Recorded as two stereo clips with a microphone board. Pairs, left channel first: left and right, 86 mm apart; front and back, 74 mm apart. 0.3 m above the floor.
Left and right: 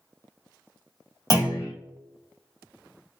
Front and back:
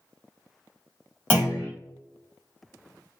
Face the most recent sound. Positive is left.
turn(degrees=65)